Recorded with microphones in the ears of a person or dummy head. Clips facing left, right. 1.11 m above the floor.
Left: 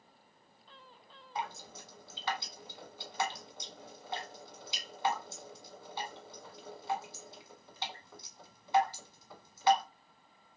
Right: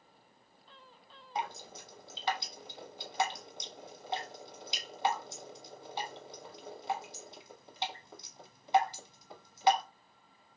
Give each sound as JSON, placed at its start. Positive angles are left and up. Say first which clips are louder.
{"t": 1.4, "sound": "dripping", "louder": "right 2 dB", "side_deg": -25, "distance_m": 1.1}